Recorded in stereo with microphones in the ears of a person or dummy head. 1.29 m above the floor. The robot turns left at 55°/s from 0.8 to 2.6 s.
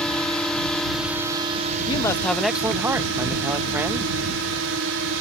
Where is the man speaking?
30° left; by 4.1 s 10° right.